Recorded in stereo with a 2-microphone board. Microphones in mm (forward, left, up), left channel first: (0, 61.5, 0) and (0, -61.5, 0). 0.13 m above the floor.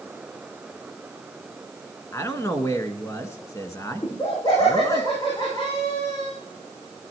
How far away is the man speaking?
About 1.2 m.